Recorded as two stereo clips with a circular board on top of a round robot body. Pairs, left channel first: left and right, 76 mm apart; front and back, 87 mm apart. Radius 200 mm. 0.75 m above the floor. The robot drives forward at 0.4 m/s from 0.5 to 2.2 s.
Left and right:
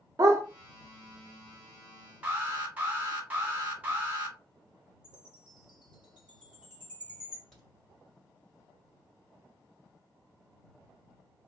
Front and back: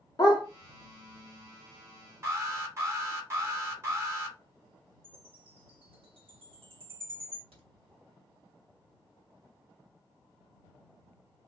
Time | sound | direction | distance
0.2 | a dog barking | 45° right | 0.8 m
2.2 | an alarm | 145° right | 1.8 m
5.0 | a chime | 170° right | 1.8 m
7.5 | a crack | 175° left | 2.0 m